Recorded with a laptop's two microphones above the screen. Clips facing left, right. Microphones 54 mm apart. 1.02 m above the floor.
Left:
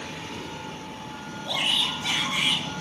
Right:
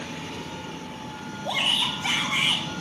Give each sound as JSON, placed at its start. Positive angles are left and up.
{"t": 1.4, "sound": "a shout", "side_deg": -25, "distance_m": 5.5}